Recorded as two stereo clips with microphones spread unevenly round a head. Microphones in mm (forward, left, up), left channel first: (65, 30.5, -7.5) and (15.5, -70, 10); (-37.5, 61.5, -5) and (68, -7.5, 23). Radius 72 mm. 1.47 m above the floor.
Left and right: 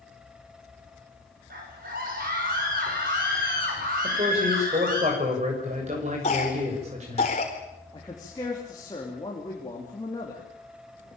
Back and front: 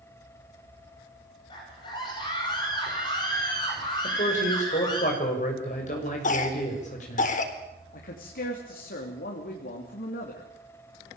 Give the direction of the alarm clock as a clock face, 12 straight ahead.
I don't hear an alarm clock.